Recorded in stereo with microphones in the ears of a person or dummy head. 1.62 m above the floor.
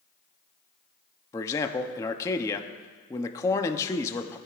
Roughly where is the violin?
I don't hear a violin.